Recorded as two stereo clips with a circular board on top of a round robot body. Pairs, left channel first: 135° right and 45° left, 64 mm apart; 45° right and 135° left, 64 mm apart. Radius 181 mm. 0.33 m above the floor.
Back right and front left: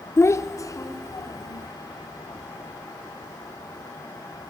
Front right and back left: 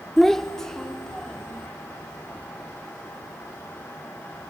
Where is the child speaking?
130° right, 0.9 m; by 1.7 s 125° right, 2 m.